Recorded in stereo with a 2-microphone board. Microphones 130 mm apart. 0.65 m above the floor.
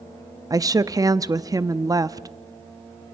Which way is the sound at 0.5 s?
25° right (ahead or behind).